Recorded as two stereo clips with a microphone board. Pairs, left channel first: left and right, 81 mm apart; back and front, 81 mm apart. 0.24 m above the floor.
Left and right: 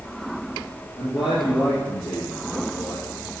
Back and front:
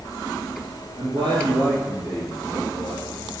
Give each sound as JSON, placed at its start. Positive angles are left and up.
{"t": 1.0, "sound": "a man speaking", "azimuth_deg": 25, "distance_m": 4.5}